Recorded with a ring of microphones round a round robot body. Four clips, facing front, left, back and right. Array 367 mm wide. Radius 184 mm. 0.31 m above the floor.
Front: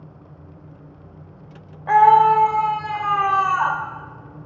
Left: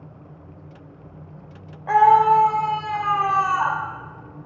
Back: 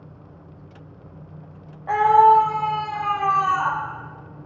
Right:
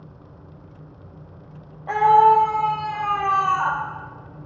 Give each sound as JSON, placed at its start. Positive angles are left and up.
{"t": 1.9, "sound": "a scream", "azimuth_deg": 20, "distance_m": 0.9}